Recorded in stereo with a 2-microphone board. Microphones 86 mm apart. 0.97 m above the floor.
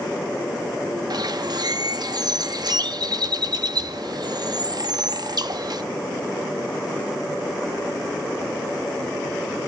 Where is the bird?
60° right (ahead or behind), 0.6 m.